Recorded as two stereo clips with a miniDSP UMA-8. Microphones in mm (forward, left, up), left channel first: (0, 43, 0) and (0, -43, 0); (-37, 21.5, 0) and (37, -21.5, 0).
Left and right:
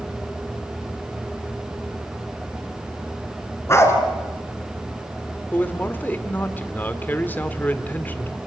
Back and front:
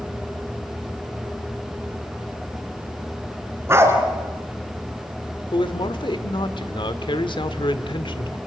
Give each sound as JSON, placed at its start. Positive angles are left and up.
{"t": 3.7, "sound": "a dog barking", "azimuth_deg": 30, "distance_m": 3.5}
{"t": 5.5, "sound": "a man speaking", "azimuth_deg": 155, "distance_m": 1.5}